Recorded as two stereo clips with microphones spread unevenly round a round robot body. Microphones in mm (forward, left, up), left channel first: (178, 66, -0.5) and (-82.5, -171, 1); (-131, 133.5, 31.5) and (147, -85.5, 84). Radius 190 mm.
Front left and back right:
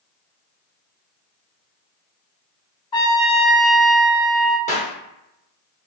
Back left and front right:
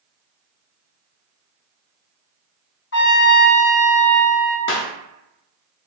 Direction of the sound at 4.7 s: 110° left.